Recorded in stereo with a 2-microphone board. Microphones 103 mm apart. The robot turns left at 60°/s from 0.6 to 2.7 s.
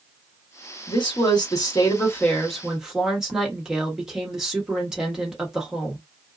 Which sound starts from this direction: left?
A woman speaking, at 0.9 s.